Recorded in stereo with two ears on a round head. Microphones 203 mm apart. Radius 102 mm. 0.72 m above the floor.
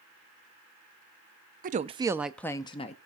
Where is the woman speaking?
40° right (ahead or behind), 0.6 m; by 3.0 s 30° left (ahead or behind), 0.7 m.